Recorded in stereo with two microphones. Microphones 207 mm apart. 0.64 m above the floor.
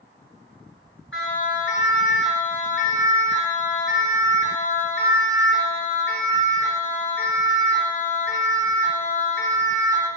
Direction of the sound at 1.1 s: 80° left.